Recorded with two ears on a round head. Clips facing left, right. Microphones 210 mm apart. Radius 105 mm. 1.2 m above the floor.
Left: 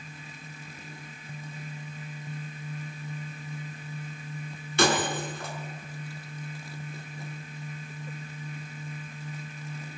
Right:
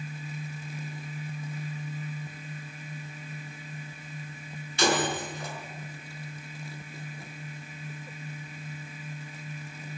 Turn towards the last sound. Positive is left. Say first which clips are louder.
# left 1 dB
turn(degrees=50)  # may be behind; listen again after turning